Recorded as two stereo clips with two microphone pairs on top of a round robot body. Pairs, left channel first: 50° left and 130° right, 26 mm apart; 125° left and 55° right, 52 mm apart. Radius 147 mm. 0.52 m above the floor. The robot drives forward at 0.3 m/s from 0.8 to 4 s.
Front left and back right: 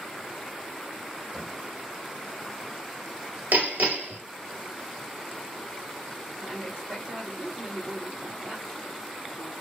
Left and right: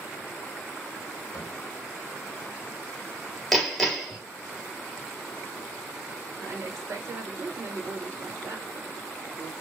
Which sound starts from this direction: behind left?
Knocking, at 1.3 s.